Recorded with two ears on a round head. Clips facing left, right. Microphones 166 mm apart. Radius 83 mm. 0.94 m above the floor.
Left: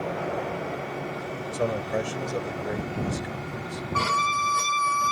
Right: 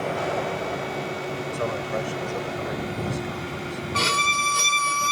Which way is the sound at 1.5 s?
25° left (ahead or behind).